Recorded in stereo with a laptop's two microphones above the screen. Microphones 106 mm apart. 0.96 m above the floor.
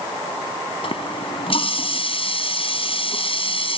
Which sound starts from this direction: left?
A running tap, at 0.8 s.